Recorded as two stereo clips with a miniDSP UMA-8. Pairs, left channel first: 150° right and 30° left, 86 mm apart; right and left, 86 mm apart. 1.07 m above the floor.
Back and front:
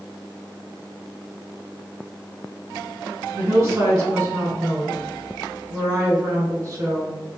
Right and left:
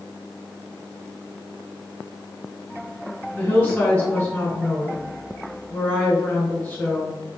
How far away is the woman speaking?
About 1.4 m.